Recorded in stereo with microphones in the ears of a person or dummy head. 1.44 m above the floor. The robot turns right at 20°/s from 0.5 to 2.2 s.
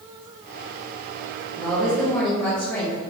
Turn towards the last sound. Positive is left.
turn(degrees=10)  # may be behind; listen again after turning